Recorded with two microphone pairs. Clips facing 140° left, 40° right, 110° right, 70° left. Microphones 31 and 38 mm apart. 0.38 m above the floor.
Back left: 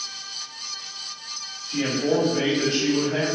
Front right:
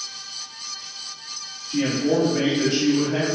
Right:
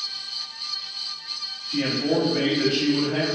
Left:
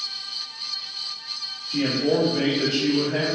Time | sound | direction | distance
1.7 | a man speaking | 155° right | 1.7 m